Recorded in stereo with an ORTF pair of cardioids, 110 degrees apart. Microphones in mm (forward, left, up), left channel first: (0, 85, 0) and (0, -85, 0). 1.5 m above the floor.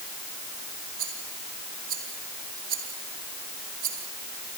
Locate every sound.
1.0 s a rattle: 60° right, 5 m